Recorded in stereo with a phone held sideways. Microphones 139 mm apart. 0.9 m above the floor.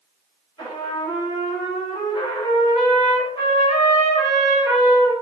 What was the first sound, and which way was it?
A trumpet, 40° left (ahead or behind).